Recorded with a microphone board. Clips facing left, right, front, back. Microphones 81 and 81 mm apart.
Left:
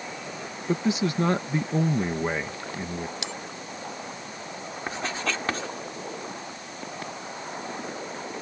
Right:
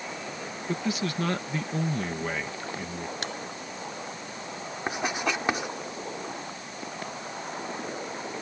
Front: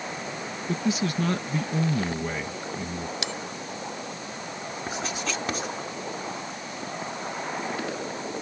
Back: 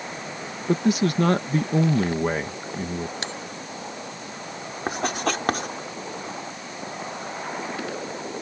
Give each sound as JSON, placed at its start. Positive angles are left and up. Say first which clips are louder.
{"t": 0.7, "sound": "a man speaking", "louder": "left 5 dB, back 6 dB", "azimuth_deg": 155}
{"t": 3.2, "sound": "a bell", "louder": "right 1 dB, even", "azimuth_deg": -130}
{"t": 4.9, "sound": "writing", "louder": "right 2 dB, back 7 dB", "azimuth_deg": -165}